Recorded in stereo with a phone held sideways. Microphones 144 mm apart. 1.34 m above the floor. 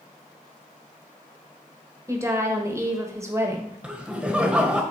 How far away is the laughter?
About 1.2 m.